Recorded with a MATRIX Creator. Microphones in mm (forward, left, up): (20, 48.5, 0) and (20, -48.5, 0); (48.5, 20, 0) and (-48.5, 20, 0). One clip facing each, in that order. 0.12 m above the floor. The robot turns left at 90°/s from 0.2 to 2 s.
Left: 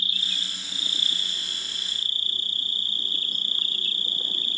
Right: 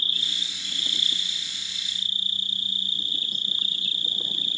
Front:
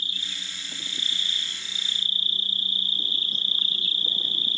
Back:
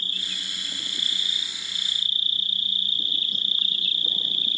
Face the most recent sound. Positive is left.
turn(degrees=55)